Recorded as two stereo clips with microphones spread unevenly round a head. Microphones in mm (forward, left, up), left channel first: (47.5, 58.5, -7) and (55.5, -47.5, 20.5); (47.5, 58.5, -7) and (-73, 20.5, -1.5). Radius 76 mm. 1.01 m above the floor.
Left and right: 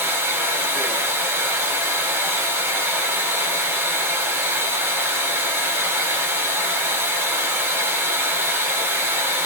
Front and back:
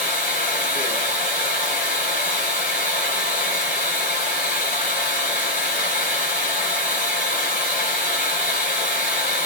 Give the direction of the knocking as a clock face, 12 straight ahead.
I don't hear knocking.